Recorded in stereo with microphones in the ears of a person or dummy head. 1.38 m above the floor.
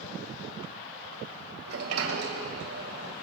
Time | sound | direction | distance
1.7 | a sliding door | 75° right (ahead or behind) | 1.8 m